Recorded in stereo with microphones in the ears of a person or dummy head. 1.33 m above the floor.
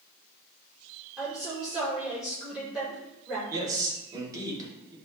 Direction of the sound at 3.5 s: 25° right (ahead or behind).